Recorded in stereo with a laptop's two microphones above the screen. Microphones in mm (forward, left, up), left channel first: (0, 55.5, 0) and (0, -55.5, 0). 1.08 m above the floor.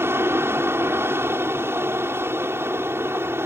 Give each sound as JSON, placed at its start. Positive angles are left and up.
{"t": 0.0, "sound": "an aircraft", "side_deg": -20}